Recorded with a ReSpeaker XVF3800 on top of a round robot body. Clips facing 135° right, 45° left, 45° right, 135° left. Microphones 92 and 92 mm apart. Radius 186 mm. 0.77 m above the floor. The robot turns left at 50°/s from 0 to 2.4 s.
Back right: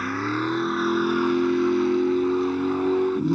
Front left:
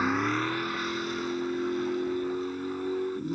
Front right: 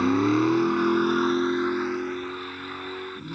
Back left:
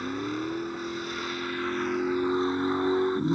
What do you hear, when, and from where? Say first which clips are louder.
0.0 s a vehicle: back right 2 dB, front right 10 dB; 35° right; by 3.4 s 155° right